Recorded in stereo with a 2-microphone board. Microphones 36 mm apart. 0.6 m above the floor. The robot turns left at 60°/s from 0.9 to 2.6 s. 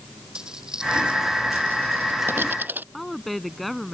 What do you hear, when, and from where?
0.3 s a dropped coin: 20° right (ahead or behind); by 2.8 s 60° right (ahead or behind)
2.9 s a woman speaking: centre (ahead or behind)